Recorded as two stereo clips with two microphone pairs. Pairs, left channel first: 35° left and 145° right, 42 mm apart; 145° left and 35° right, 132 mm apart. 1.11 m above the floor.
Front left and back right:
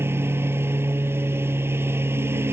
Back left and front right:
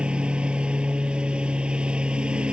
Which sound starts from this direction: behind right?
A lawn mower, at 0.0 s.